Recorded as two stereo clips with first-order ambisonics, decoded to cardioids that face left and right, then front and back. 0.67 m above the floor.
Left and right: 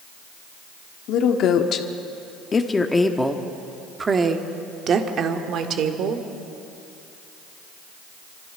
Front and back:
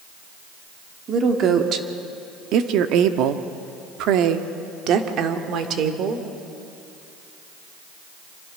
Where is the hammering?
No hammering in this recording.